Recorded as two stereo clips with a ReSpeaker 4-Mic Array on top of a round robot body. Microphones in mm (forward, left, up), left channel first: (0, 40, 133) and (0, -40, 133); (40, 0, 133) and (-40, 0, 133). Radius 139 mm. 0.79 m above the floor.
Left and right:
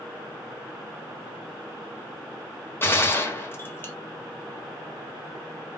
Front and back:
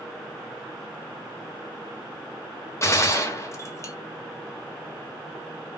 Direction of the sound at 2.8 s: 40° left.